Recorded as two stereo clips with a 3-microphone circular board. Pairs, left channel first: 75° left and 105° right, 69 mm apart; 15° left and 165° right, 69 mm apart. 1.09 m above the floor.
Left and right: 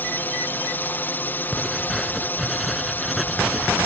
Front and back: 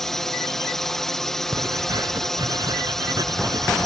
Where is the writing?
165° left.